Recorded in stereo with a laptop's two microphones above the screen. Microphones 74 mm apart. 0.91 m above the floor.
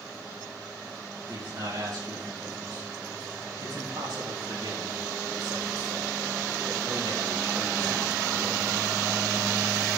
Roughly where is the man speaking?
Right.